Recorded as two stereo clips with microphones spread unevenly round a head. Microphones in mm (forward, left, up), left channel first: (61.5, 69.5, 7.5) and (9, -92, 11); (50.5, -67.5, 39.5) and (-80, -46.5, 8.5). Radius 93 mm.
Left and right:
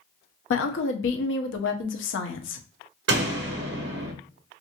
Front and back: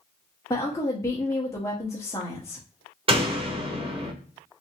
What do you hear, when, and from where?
0.5 s a woman speaking: 65° left, 0.8 m
3.1 s a door slam: 135° right, 1.0 m